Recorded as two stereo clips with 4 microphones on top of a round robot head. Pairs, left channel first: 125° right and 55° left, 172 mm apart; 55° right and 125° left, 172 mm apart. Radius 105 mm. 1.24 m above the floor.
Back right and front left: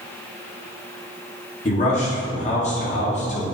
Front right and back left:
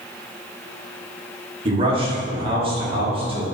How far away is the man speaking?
About 2.5 m.